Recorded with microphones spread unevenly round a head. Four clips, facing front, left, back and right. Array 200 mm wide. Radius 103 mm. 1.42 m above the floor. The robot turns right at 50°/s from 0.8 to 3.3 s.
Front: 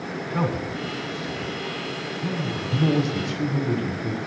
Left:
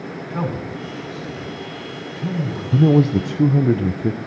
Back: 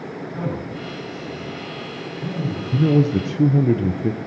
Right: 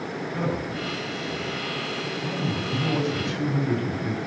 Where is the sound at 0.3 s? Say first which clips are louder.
Left 3 dB, front 3 dB; 35° left, 6.5 m; by 2.6 s 125° left, 6.5 m.